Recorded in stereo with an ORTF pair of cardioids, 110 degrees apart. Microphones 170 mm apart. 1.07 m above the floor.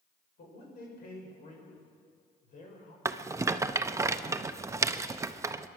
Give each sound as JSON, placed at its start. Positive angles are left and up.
{"t": 0.4, "sound": "a man speaking", "azimuth_deg": 65, "distance_m": 5.5}
{"t": 3.0, "sound": "a rattle", "azimuth_deg": -20, "distance_m": 0.6}